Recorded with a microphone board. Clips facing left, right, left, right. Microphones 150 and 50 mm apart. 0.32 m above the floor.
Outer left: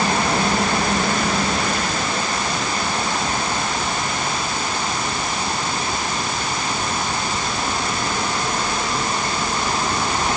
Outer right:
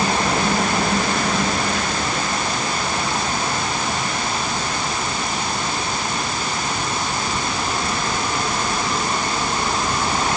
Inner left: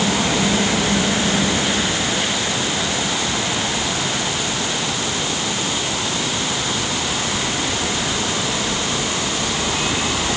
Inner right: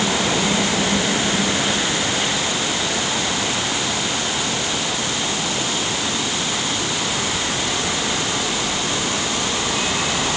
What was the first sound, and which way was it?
Only background noise.